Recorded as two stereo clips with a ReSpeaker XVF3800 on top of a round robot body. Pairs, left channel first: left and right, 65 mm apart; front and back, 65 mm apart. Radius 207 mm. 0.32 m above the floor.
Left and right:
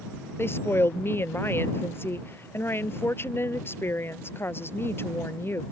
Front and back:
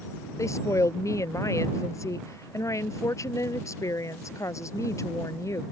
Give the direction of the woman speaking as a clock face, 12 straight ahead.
11 o'clock.